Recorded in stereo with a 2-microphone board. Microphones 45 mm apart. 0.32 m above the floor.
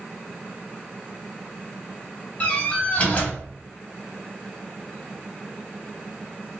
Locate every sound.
2.4 s a door slam: 35° left (ahead or behind), 1.2 m